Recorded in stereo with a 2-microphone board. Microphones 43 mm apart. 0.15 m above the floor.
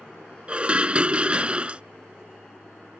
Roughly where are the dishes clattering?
Right.